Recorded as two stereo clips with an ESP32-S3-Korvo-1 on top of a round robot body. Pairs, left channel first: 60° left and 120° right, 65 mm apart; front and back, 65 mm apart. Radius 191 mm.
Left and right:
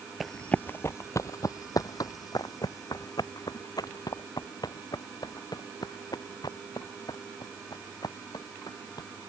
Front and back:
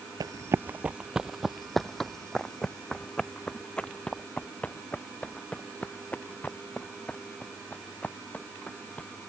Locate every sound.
0.2 s running footsteps: 150° left; by 9.1 s 70° left